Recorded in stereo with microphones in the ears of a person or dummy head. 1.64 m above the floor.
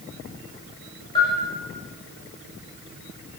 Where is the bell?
30° left (ahead or behind), 6.5 m.